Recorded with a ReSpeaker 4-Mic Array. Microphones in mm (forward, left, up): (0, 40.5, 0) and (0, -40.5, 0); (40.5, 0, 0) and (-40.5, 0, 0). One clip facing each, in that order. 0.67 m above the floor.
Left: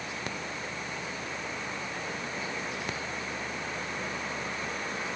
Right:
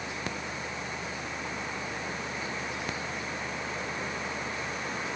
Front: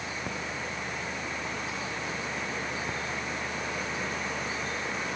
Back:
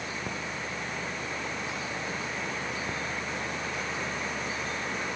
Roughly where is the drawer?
No drawer in this recording.